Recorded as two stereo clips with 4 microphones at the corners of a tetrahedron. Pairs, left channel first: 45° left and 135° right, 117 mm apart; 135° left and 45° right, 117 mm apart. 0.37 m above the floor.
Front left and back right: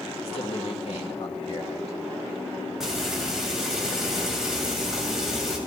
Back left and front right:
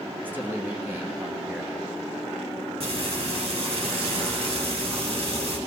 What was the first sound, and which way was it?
A man speaking, 25° left.